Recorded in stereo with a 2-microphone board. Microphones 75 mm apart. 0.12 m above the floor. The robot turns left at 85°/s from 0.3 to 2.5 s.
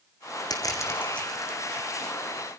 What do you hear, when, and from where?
0.5 s crushing: 70° left (ahead or behind), 2.5 m; by 1.9 s 45° right (ahead or behind), 2.5 m